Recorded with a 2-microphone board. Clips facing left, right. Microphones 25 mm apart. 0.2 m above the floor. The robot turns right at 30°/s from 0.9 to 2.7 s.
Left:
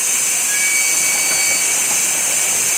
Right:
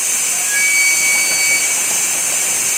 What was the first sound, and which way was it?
A flute, 15° right (ahead or behind).